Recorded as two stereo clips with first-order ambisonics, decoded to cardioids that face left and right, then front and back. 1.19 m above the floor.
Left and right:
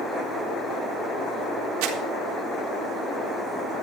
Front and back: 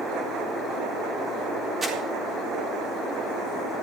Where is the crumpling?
100° right, 2.5 m.